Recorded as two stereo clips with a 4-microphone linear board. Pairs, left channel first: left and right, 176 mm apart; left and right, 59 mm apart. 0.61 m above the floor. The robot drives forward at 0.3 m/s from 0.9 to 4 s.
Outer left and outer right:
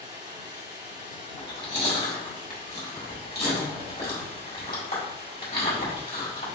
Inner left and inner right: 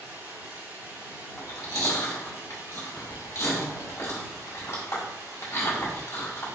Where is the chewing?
80° left, 1.4 m; by 6.5 s 55° left (ahead or behind), 1.7 m.